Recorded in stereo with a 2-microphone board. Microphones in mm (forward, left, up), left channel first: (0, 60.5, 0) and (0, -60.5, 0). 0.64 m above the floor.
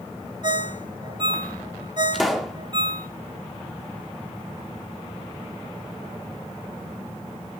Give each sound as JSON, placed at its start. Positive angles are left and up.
{"t": 0.4, "sound": "a ringtone", "side_deg": -40, "distance_m": 0.6}
{"t": 2.1, "sound": "a pop", "side_deg": 0, "distance_m": 0.8}